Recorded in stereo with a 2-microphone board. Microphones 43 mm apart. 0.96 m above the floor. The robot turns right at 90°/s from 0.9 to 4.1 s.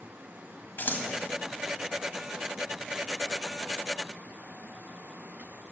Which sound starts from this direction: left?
Scissors, at 0.8 s.